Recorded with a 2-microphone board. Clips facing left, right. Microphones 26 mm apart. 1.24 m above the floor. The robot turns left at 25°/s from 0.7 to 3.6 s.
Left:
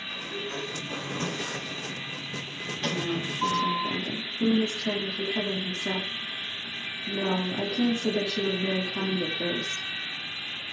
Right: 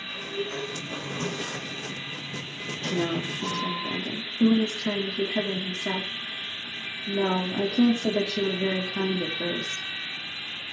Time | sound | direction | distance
0.1 | a sliding door | straight behind | 8 m
2.9 | a woman speaking | 75° right (ahead or behind) | 2 m